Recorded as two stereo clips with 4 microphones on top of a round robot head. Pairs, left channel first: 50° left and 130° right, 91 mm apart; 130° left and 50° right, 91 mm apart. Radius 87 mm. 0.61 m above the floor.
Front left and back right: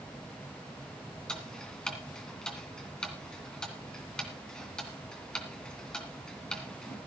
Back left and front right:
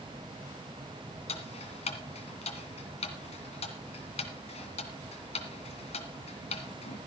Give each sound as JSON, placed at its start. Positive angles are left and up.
{"t": 1.3, "sound": "ticking", "azimuth_deg": 130, "distance_m": 2.0}